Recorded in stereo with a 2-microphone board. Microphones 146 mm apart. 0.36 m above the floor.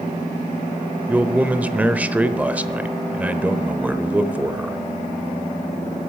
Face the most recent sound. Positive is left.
turn(degrees=-10)  # may be behind; listen again after turning